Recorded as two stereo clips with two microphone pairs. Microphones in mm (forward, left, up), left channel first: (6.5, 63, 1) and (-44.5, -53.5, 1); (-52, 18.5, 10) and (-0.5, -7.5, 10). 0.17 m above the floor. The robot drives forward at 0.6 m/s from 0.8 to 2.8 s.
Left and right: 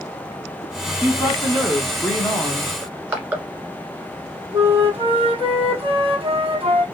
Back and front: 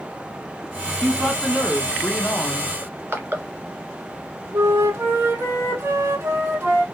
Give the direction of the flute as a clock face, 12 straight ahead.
2 o'clock.